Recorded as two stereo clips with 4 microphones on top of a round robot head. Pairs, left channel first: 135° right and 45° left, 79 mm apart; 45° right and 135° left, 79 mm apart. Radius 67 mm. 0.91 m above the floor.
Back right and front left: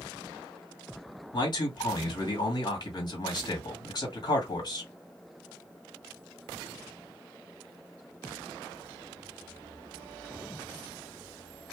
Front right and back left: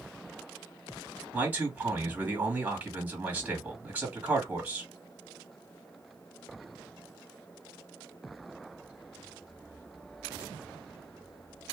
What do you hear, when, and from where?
1.3 s a man speaking: 155° right, 2 m